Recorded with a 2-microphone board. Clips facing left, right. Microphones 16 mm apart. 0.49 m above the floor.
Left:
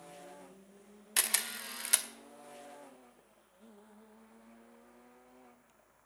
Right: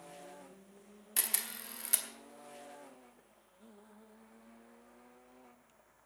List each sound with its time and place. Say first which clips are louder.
1.2 s a camera shutter: left 5 dB; 25° left (ahead or behind), 1.0 m